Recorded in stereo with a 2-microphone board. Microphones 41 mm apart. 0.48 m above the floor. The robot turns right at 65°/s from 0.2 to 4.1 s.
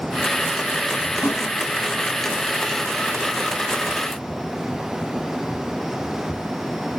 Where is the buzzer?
No buzzer in this recording.